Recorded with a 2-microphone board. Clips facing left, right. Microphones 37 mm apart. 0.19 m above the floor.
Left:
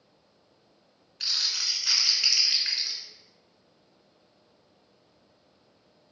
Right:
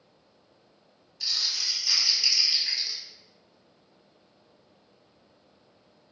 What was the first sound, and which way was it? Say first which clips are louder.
Crumpling: even; 50° left (ahead or behind).